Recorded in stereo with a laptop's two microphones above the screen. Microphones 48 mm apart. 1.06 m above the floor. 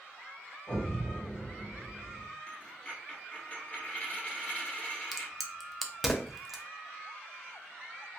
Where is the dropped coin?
30° left (ahead or behind), 1.5 m.